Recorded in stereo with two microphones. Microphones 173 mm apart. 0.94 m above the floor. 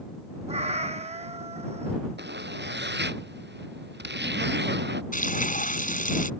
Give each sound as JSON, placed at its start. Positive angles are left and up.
{"t": 0.5, "sound": "a cat meowing", "side_deg": -40}
{"t": 2.2, "sound": "a zipper", "side_deg": -85}
{"t": 5.1, "sound": "frying", "side_deg": 50}